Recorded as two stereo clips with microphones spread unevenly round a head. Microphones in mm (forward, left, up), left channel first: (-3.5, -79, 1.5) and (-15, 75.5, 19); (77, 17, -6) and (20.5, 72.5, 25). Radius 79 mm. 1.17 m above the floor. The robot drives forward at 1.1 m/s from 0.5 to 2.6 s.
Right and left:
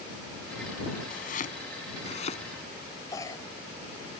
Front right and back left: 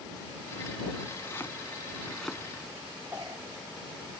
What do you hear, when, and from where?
1.1 s chopping: 125° right; by 2.4 s 140° right
3.1 s a cough: 155° right